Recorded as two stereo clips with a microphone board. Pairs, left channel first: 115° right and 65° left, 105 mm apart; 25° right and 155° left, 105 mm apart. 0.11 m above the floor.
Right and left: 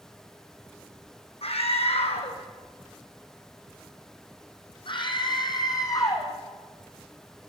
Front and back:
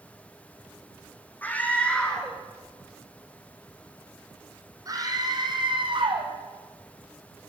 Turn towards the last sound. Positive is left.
turn(degrees=-170)